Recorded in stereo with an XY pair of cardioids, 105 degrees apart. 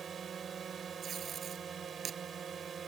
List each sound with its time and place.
0.0 s a drone: 45° right
1.0 s tape being pulled: 55° right